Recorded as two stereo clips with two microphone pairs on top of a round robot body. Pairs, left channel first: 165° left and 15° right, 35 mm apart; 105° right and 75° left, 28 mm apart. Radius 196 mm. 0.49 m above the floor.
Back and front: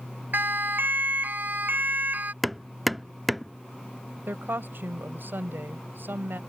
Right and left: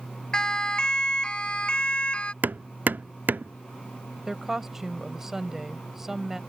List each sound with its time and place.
0.3 s a siren: 40° right; by 2.3 s 55° right
2.4 s hammering: 70° left
4.3 s a woman speaking: 5° right